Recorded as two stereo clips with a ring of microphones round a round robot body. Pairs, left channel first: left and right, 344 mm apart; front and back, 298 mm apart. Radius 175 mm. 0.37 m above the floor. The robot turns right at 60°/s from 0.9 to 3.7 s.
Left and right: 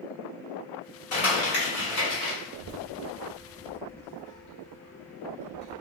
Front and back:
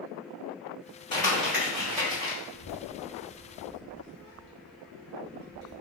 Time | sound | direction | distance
1.1 | crumpling | 70° left | 1.7 m
2.5 | a child speaking | 80° left | 0.7 m